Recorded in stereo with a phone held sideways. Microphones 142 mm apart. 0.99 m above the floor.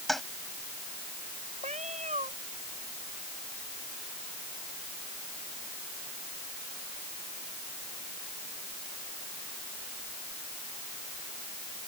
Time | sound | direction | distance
0.1 | a toilet flushing | centre (ahead or behind) | ?
1.6 | a cat meowing | 55° right (ahead or behind) | ?